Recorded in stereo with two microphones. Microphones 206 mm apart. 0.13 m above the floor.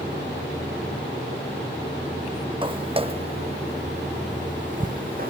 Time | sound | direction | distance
2.6 | footsteps | 25° right (ahead or behind) | ?